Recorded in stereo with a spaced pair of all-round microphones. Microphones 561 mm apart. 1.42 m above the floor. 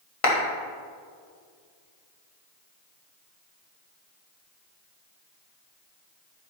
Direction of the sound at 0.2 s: 70° left (ahead or behind).